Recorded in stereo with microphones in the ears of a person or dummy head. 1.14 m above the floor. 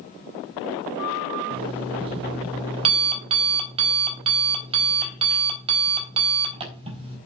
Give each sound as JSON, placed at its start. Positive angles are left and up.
{"t": 1.5, "sound": "an alarm clock", "side_deg": -30, "distance_m": 4.0}